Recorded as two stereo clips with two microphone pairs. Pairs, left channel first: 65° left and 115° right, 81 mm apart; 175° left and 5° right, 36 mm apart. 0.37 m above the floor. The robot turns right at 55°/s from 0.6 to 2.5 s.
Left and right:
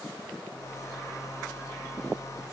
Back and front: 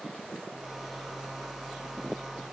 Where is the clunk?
I don't hear a clunk.